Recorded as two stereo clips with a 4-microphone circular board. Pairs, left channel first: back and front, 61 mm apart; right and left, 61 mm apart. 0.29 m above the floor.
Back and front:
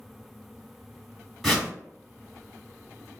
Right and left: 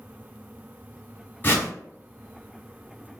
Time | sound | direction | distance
1.4 | a whoosh | 95° right | 1.8 m